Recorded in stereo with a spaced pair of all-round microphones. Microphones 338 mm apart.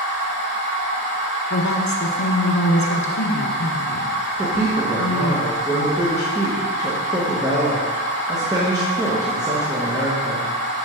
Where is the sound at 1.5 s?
55° left (ahead or behind), 1.1 m.